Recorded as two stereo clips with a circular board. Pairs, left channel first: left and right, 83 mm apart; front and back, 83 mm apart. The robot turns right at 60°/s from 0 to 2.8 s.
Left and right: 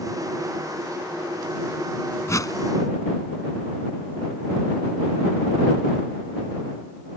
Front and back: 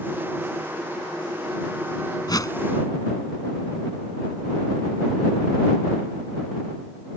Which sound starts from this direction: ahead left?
A whoosh, at 2.3 s.